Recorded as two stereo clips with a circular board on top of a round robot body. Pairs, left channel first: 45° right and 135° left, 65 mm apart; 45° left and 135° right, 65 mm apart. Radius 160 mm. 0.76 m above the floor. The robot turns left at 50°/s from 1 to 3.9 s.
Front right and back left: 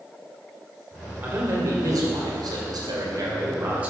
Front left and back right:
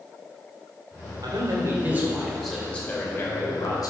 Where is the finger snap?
No finger snap in this recording.